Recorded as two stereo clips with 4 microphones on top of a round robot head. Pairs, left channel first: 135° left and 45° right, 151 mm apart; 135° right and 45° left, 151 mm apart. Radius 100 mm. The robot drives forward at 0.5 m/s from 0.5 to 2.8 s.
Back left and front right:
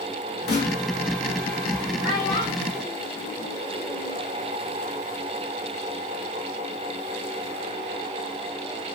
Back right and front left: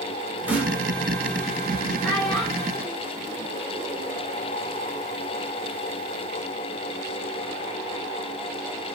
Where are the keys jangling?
No keys jangling in this recording.